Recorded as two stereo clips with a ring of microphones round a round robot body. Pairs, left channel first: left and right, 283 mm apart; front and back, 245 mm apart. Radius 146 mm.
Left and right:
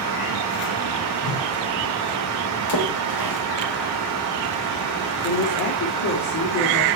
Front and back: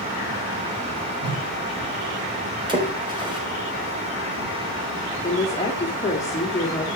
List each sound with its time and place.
1.2 s a whoosh: 105° left, 5 m
2.7 s a splash: 110° left, 4 m
5.2 s a woman speaking: 75° left, 2.5 m